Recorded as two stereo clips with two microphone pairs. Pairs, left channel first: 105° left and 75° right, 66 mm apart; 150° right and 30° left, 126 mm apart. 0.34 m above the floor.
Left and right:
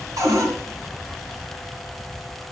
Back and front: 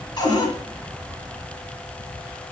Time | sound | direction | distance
0.2 | a cupboard door | 95° right | 3 m